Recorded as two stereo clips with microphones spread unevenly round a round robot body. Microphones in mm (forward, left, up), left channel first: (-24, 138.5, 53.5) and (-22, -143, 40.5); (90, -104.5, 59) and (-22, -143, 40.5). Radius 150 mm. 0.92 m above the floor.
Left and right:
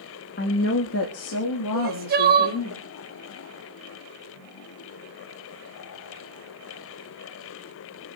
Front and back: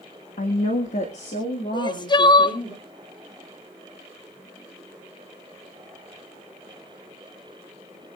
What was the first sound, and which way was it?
A woman speaking, 35° left.